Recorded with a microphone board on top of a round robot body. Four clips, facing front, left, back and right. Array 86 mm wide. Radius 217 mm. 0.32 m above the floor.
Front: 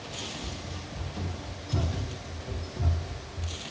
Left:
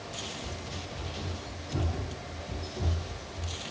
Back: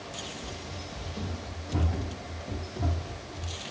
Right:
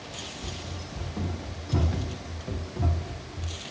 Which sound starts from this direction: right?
Running footsteps, at 0.4 s.